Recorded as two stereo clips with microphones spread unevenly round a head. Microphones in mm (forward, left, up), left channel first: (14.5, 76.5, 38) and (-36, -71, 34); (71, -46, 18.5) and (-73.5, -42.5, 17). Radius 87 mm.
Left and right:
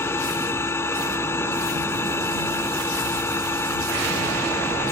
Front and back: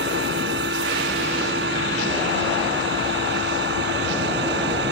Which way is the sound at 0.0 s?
145° left.